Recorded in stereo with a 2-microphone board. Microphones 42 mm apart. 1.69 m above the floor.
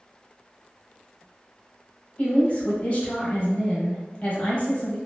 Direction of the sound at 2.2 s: 35° left (ahead or behind).